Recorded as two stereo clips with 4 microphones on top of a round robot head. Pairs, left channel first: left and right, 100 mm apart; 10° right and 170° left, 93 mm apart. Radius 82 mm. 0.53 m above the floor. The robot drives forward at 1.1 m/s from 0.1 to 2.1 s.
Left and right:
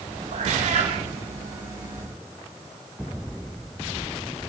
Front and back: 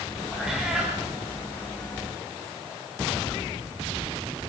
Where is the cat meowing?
100° right, 6.5 m; by 1.0 s 105° right, 6.5 m.